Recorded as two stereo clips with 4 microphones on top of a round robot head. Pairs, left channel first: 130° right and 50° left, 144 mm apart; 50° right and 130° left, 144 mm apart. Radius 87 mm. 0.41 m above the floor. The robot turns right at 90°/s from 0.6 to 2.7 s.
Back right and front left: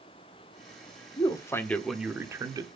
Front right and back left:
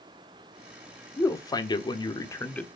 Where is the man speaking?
110° right, 1.2 m; by 2.7 s 25° left, 1.2 m.